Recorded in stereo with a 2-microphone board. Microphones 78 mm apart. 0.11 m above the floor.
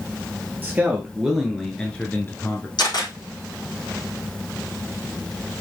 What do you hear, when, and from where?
0.6 s a man speaking: 20° right (ahead or behind), 2.5 m; by 2.7 s 40° left (ahead or behind), 1.9 m
2.8 s a camera shutter: 65° left (ahead or behind), 5 m